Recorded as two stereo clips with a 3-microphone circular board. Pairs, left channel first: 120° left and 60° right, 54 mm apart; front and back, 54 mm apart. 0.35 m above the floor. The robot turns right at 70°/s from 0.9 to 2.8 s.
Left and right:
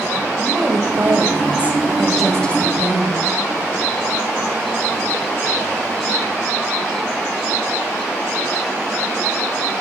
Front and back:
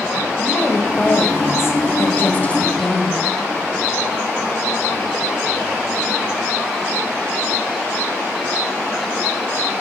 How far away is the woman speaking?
About 1.9 m.